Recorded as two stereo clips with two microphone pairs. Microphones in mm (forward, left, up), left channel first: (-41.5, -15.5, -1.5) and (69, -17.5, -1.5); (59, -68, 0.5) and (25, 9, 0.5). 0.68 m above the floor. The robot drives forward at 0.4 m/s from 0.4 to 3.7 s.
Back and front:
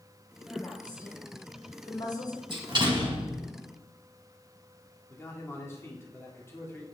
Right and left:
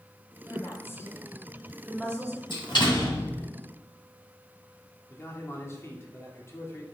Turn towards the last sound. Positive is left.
turn(degrees=-115)